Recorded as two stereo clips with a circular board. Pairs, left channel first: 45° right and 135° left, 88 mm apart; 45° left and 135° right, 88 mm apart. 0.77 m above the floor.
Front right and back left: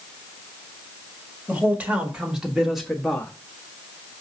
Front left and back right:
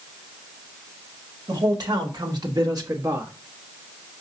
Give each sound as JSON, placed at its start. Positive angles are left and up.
{"t": 1.5, "sound": "a man speaking", "azimuth_deg": -160, "distance_m": 1.6}